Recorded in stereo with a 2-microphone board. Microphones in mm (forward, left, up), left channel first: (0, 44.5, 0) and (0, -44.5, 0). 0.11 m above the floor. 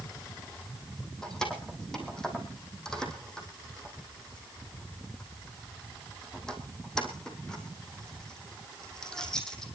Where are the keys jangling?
5° left (ahead or behind), 3 m.